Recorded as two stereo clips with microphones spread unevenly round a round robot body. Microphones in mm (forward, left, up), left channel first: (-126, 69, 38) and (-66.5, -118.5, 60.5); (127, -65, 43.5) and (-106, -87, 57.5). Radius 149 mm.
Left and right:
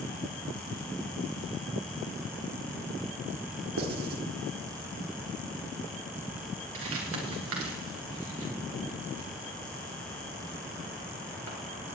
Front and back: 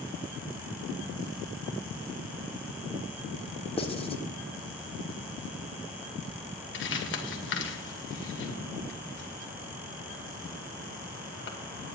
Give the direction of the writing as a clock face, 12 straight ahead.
2 o'clock.